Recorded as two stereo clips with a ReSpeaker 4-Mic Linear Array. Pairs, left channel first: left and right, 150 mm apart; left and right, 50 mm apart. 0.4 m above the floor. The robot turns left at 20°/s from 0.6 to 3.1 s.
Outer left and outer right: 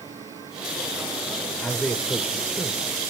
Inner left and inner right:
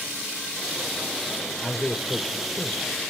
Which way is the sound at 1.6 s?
5° left (ahead or behind).